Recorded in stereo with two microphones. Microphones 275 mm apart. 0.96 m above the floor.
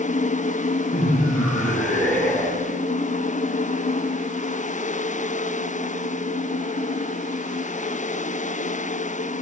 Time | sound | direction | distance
0.9 | laughter | 5° left (ahead or behind) | 3 m